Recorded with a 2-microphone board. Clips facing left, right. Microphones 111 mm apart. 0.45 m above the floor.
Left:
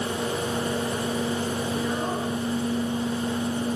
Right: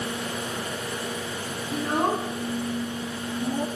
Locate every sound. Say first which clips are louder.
1.7 s a child speaking: right 2 dB; 60° right (ahead or behind), 2.5 m; by 3.7 s 75° right (ahead or behind), 1.8 m